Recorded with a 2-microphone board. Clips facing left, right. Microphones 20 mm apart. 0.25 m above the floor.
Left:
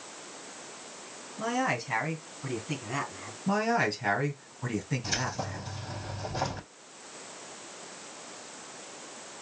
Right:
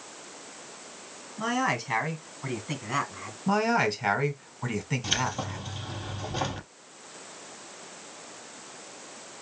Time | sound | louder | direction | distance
1.4 | a man speaking | right 2 dB | 30° right (ahead or behind) | 2.0 m
3.5 | a man speaking | right 2 dB | 40° right (ahead or behind) | 1.9 m
5.0 | keys jangling | right 3 dB | 80° right | 4 m